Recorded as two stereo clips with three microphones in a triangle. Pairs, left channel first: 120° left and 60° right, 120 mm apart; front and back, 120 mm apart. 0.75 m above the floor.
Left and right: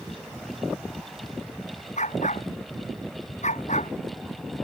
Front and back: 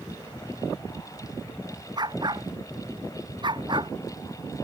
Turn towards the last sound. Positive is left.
turn(degrees=130)